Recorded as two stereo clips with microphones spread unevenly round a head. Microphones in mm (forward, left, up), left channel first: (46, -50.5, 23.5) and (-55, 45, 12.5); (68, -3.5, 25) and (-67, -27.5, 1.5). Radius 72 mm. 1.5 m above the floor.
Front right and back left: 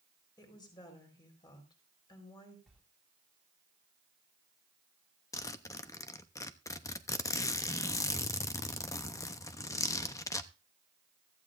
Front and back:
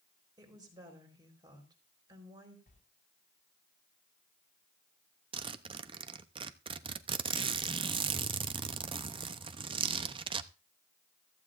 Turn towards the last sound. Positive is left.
turn(degrees=-115)